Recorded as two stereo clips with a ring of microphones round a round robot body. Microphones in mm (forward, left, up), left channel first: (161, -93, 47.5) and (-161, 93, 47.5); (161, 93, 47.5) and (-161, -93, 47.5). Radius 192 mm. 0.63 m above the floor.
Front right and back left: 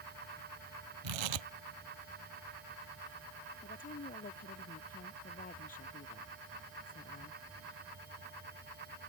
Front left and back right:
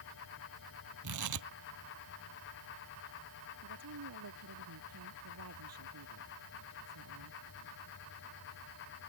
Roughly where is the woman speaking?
Right.